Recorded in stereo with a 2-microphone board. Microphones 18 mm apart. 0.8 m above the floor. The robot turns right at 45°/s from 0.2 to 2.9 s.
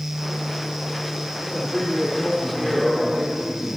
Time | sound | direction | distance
1.4 | a man speaking | 130° left | 2.5 m